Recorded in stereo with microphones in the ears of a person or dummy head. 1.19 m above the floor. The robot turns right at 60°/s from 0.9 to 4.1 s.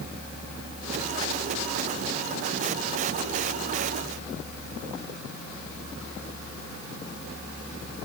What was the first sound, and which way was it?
Only background noise.